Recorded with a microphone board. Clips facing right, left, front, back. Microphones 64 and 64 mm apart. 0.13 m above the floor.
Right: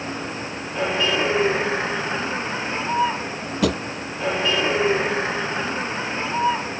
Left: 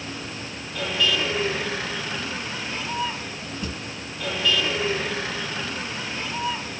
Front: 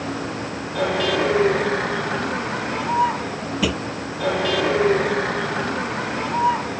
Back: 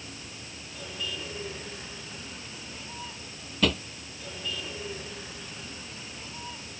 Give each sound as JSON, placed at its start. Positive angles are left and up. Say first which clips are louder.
{"t": 0.0, "sound": "a vehicle", "louder": "right 5 dB, front 18 dB", "azimuth_deg": -30}
{"t": 3.6, "sound": "a drawer", "louder": "right 14 dB, front 3 dB", "azimuth_deg": -80}